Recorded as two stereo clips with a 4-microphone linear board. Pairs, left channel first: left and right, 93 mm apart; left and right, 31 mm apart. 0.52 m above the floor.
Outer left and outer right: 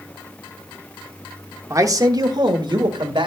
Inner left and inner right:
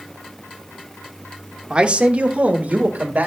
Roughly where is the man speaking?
Right.